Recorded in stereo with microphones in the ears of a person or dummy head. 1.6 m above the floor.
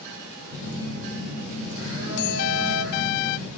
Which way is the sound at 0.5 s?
20° right (ahead or behind).